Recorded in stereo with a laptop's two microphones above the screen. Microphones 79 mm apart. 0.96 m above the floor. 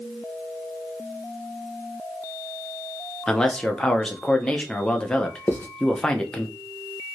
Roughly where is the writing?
Left.